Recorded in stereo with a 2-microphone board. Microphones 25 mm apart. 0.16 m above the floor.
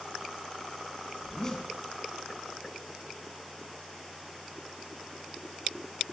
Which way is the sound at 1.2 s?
20° left (ahead or behind).